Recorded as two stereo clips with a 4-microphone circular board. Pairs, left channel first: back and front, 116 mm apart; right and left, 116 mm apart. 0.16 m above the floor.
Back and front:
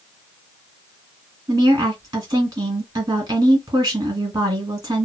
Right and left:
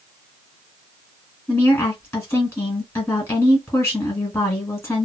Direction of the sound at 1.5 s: 35° right.